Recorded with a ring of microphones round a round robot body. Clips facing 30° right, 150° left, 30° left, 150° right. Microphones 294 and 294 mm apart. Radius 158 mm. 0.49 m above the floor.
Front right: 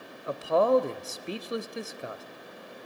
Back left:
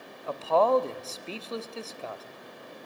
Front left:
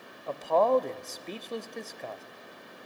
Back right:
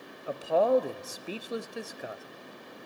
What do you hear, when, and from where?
0.3 s a man speaking: 80° right, 1.0 m